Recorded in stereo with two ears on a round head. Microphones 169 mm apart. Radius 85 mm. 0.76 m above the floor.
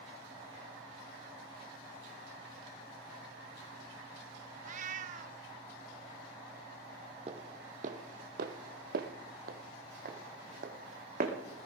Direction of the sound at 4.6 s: 40° right (ahead or behind).